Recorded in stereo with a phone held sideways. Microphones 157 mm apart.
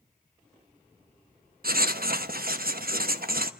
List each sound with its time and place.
1.6 s writing: 70° right (ahead or behind), 1.0 m